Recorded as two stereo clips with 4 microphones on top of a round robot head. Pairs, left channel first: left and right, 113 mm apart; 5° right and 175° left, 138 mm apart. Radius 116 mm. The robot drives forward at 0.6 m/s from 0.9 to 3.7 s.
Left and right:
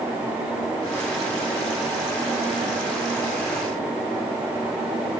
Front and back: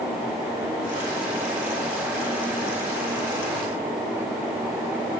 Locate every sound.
Only background noise.